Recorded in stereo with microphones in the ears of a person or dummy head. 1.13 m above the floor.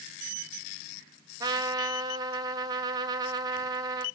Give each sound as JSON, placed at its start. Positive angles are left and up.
{"t": 1.4, "sound": "a trumpet", "side_deg": -20, "distance_m": 0.9}